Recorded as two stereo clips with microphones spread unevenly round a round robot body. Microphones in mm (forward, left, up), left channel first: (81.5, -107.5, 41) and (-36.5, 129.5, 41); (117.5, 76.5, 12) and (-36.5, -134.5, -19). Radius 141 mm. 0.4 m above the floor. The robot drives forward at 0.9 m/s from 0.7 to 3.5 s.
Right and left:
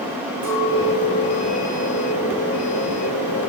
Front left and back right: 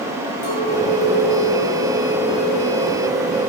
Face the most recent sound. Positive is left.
turn(degrees=120)